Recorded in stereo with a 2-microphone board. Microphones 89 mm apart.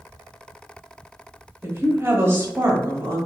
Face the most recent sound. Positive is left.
turn(degrees=-30)  # may be behind; listen again after turning